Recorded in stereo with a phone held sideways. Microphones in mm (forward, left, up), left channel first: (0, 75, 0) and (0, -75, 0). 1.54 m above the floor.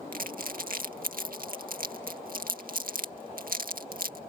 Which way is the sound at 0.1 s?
75° right (ahead or behind).